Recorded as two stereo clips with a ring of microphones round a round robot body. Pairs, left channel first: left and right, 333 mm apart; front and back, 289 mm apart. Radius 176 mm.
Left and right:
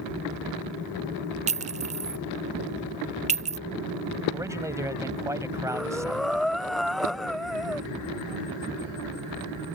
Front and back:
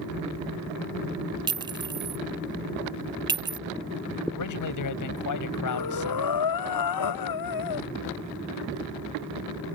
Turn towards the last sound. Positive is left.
turn(degrees=0)